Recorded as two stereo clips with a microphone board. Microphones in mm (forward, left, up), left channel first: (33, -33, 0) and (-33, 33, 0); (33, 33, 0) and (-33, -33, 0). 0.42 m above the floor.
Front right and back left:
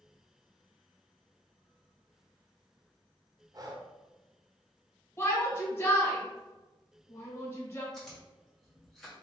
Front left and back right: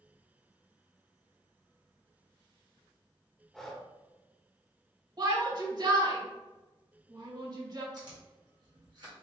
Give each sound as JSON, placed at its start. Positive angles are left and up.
{"t": 3.5, "sound": "breathing", "azimuth_deg": 130, "distance_m": 0.6}
{"t": 5.2, "sound": "a shout", "azimuth_deg": -100, "distance_m": 1.7}
{"t": 7.9, "sound": "chewing", "azimuth_deg": -130, "distance_m": 2.0}